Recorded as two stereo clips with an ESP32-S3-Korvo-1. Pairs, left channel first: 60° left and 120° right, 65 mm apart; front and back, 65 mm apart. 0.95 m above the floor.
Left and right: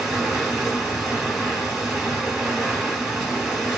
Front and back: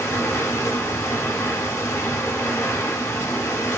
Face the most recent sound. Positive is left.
turn(degrees=-35)